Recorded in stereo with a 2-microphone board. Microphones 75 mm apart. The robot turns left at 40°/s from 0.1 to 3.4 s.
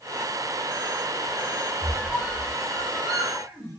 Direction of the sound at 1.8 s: 10° left (ahead or behind).